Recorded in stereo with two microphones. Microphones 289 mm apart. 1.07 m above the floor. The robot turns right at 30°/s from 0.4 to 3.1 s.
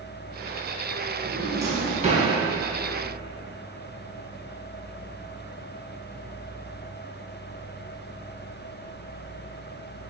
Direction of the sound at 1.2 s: Centre (ahead or behind).